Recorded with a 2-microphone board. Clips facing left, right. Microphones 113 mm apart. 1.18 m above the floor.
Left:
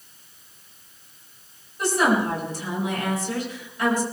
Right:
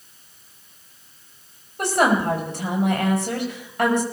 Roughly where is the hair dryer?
No hair dryer in this recording.